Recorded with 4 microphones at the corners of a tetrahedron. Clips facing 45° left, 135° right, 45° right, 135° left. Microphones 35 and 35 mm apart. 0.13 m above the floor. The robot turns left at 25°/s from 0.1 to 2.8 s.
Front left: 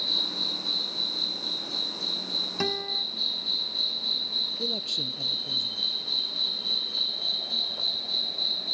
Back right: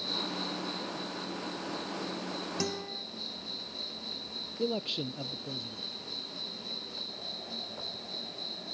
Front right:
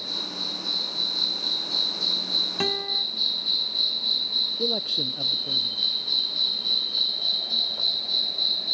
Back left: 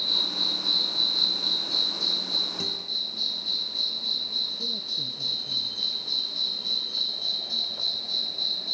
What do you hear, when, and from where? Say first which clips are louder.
0.0 s an insect: front left 6 dB, back left 5 dB; 85° left; by 8.8 s 20° left
2.6 s a guitar: front left 7 dB, front right 5 dB; 10° right; by 3.0 s 15° right
4.6 s a man speaking: front left 2 dB, front right 5 dB; 65° right